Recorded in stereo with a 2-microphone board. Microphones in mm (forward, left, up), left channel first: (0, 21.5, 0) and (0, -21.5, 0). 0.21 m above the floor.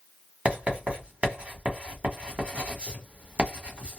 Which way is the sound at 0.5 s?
30° right (ahead or behind).